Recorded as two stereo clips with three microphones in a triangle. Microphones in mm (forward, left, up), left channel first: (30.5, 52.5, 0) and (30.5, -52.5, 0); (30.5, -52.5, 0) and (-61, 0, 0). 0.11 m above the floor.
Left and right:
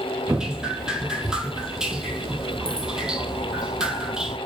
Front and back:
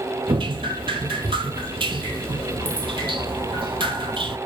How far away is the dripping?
About 0.6 m.